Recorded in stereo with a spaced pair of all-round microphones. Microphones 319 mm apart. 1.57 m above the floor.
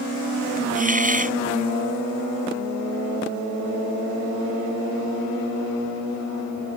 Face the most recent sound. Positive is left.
turn(degrees=-25)  # may be behind; listen again after turning